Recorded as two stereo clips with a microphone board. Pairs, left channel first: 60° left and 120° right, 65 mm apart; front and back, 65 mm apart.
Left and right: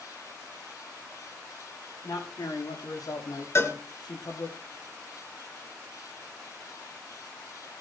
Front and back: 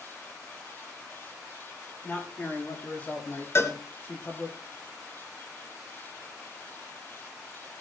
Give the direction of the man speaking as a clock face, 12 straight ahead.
10 o'clock.